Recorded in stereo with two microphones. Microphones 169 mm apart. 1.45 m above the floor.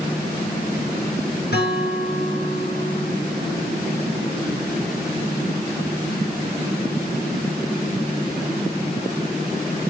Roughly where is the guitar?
Left.